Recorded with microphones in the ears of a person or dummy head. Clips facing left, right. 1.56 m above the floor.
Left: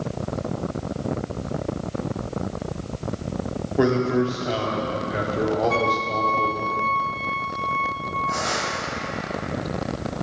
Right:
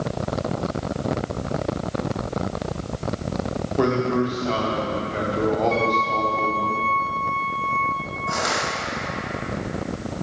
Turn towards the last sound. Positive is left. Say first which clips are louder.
# right 3 dB
turn(degrees=-75)  # may be behind; listen again after turning